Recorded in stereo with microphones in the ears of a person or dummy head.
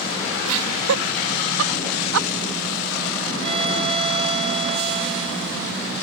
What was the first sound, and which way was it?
Laughter, 85° right.